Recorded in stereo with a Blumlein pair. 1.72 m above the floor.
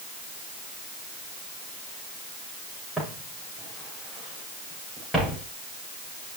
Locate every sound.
3.0 s footsteps: 5° right, 7 m